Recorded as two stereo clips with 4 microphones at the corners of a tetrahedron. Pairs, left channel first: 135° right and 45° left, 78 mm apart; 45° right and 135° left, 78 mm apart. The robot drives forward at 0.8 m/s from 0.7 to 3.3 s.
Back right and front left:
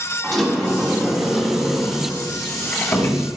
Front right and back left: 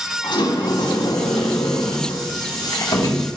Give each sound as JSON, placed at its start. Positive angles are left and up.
{"t": 0.2, "sound": "a sliding door", "azimuth_deg": -50, "distance_m": 3.5}